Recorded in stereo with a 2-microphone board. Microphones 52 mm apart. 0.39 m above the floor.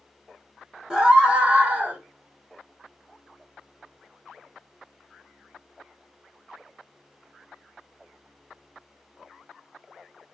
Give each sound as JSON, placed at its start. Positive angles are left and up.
{"t": 0.9, "sound": "a scream", "side_deg": -15, "distance_m": 1.0}